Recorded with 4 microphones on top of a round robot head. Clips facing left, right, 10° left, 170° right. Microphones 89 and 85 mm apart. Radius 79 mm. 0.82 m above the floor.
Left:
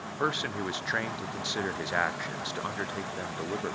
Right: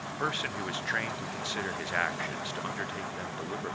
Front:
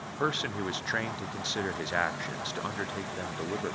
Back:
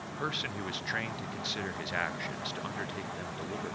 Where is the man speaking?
35° left, 0.5 m.